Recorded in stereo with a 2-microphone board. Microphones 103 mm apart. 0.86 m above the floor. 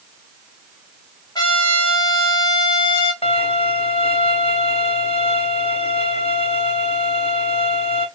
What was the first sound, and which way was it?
A trumpet, 40° left (ahead or behind).